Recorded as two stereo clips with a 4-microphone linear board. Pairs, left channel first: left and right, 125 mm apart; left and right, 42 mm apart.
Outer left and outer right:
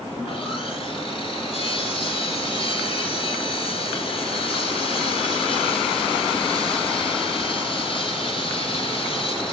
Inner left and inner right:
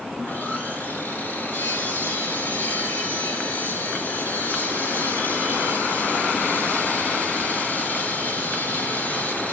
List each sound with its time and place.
0.1 s sawing: 50° left (ahead or behind), 2.5 m